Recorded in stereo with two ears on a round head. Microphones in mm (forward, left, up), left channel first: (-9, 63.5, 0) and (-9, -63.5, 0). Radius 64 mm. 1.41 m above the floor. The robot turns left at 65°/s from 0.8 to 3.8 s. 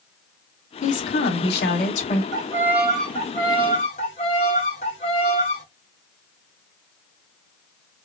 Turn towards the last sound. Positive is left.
turn(degrees=120)